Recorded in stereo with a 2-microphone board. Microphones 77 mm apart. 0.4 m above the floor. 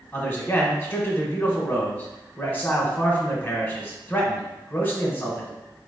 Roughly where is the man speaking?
Left.